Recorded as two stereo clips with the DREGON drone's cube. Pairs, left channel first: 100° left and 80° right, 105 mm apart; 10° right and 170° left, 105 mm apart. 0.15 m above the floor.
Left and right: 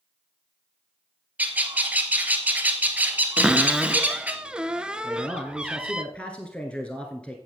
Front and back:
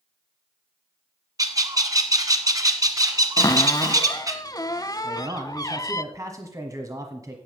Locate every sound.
1.4 s a bird: 150° right, 1.4 m
3.4 s a cupboard door: 5° right, 0.6 m
5.0 s a man speaking: 170° left, 1.3 m